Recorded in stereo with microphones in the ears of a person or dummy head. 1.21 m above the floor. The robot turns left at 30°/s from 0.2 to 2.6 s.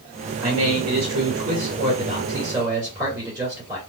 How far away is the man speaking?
About 2 m.